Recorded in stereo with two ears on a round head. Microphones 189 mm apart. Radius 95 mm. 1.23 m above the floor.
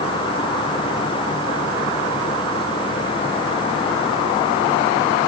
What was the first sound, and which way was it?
Only background noise.